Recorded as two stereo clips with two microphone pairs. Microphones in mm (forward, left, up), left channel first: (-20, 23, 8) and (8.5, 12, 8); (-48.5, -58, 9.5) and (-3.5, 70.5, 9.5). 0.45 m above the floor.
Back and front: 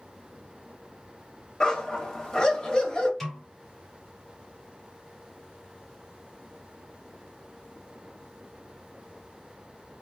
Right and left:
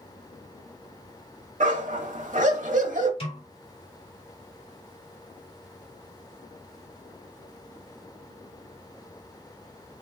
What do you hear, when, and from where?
1.6 s a dog barking: 95° left, 0.8 m
3.2 s a snare drum: 120° right, 1.6 m